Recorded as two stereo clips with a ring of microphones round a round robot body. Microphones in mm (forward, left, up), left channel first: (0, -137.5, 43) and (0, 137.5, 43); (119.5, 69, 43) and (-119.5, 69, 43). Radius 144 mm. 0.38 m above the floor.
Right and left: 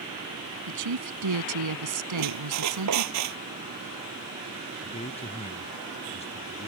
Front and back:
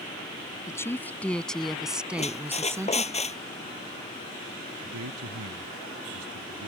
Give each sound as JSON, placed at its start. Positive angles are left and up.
{"t": 0.7, "sound": "a woman speaking", "azimuth_deg": 80}
{"t": 2.2, "sound": "a squeak", "azimuth_deg": 65}
{"t": 4.8, "sound": "a man speaking", "azimuth_deg": -155}